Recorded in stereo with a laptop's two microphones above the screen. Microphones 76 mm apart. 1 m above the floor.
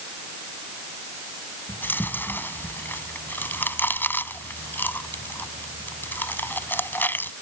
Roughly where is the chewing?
Left.